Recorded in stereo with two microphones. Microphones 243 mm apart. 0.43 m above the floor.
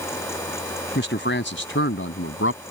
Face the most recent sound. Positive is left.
turn(degrees=60)  # may be behind; listen again after turning